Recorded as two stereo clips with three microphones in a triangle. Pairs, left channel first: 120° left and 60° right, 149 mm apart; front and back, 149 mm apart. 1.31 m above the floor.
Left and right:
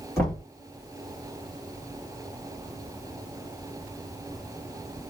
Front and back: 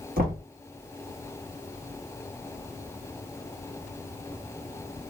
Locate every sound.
0.2 s knocking: 170° right, 1.9 m